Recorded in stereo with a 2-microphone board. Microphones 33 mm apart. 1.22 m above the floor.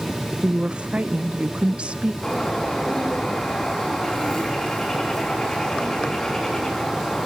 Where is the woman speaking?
40° right (ahead or behind), 0.6 m.